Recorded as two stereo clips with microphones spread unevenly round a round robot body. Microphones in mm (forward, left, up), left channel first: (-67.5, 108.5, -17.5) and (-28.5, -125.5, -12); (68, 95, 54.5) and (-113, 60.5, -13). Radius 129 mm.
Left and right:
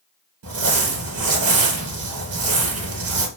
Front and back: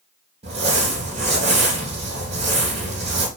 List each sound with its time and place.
0.4 s crumpling: 105° right, 2.5 m